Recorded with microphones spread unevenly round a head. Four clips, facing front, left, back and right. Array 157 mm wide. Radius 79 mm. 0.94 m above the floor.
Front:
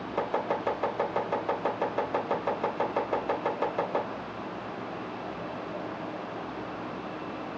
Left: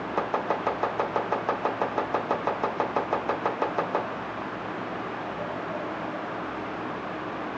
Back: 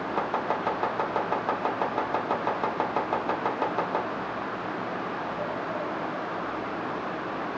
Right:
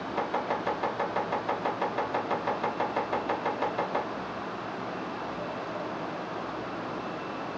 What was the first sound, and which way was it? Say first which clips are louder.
Chopping: left 3 dB, even; 120° left.